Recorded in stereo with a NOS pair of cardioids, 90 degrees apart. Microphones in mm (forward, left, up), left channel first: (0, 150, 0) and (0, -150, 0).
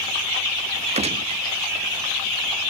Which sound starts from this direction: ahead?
A gunshot, at 0.9 s.